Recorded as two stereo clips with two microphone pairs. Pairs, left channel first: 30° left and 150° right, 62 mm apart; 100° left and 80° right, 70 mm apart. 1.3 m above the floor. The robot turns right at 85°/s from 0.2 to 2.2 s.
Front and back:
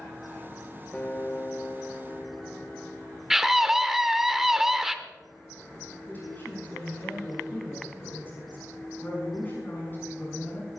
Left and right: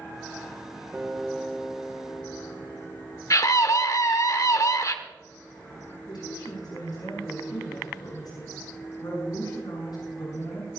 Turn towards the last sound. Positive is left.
turn(degrees=85)